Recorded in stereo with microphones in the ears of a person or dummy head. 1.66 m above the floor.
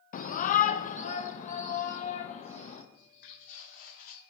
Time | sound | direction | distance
0.1 | a shout | 50° left (ahead or behind) | 0.9 m
2.9 | footsteps | 55° left (ahead or behind) | 5 m